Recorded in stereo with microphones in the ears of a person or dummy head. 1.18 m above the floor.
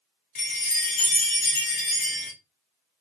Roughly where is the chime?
Left.